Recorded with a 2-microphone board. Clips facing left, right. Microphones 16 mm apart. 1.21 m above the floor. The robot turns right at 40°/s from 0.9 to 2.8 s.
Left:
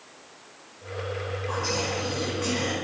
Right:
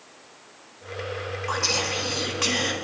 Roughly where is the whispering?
Right.